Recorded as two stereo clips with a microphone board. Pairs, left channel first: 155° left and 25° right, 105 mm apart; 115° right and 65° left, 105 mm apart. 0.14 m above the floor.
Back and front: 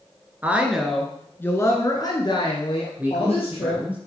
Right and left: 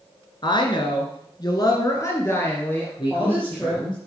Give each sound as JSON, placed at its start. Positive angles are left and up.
{"t": 0.4, "sound": "a woman speaking", "azimuth_deg": -90, "distance_m": 1.7}
{"t": 3.0, "sound": "a man speaking", "azimuth_deg": -95, "distance_m": 2.5}